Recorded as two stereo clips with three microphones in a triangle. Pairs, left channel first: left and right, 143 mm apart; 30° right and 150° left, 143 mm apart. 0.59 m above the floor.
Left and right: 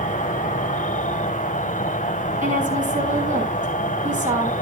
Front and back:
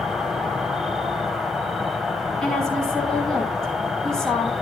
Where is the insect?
65° left, 1.3 m.